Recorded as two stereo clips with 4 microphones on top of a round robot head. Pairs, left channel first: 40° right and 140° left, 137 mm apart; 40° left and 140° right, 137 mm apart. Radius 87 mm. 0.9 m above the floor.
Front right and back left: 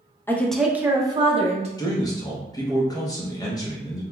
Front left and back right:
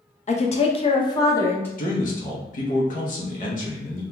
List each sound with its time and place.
0.3 s a woman speaking: 35° left, 0.6 m; by 1.7 s 110° left, 0.8 m
1.8 s a man speaking: 25° left, 0.7 m